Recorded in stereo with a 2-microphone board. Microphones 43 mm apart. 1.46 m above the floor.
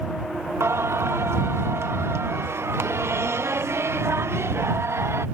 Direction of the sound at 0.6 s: 80° right.